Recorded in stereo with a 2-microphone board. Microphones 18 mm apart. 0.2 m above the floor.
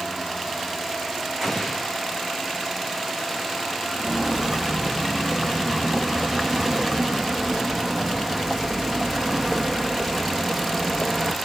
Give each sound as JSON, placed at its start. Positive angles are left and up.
{"t": 1.4, "sound": "an explosion", "side_deg": -20, "distance_m": 5.5}
{"t": 3.9, "sound": "footsteps", "side_deg": -45, "distance_m": 6.0}